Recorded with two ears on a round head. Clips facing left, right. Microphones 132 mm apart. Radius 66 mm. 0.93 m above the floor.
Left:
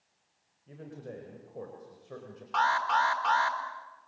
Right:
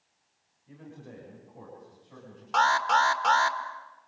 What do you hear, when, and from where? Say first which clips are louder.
0.7 s a man speaking: left 3 dB; 40° left (ahead or behind), 5 m; by 2.4 s 70° left (ahead or behind), 5 m
2.5 s an alarm: right 3 dB; 55° right (ahead or behind), 1.8 m